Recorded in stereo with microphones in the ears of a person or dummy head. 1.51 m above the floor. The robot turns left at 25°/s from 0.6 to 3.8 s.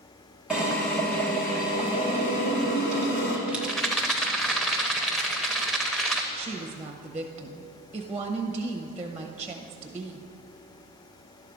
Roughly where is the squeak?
No squeak in this recording.